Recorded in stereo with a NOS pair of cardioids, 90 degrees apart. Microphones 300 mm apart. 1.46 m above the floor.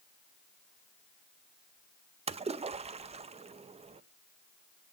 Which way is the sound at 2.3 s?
20° right.